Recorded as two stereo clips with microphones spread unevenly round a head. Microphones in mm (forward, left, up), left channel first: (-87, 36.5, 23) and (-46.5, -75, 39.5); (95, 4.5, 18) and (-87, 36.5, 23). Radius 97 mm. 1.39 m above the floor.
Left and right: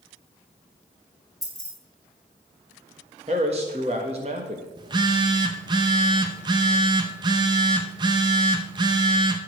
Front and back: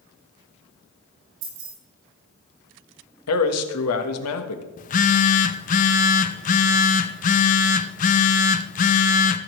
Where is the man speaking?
10° right, 1.5 m.